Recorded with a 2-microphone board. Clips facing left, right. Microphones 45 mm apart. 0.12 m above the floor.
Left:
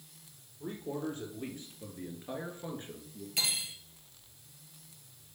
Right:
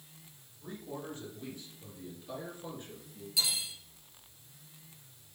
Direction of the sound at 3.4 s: 50° left (ahead or behind).